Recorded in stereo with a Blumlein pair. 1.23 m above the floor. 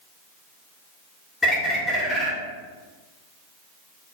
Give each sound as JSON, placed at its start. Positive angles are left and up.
{"t": 1.4, "sound": "a bird", "azimuth_deg": 10, "distance_m": 0.9}